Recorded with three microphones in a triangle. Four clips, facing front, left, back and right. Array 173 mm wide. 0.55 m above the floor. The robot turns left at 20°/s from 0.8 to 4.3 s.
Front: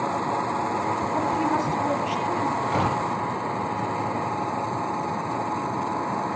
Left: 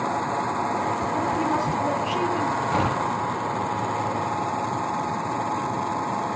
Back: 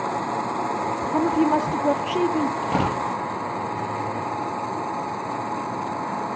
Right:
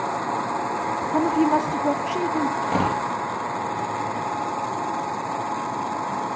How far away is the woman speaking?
About 1.6 m.